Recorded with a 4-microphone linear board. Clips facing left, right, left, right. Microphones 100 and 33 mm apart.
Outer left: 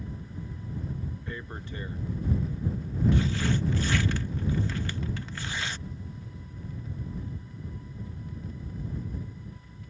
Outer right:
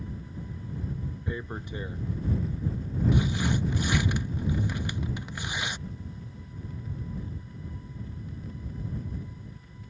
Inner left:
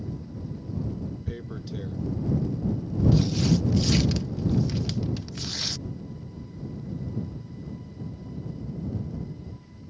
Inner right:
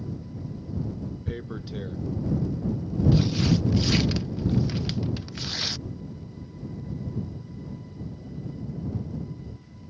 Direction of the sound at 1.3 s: 15° right (ahead or behind).